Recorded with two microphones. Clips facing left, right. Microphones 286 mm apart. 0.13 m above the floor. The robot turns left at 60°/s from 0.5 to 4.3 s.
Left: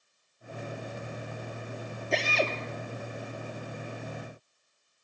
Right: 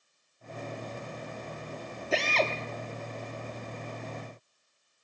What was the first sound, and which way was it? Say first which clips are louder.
A drill: even; 5° right (ahead or behind).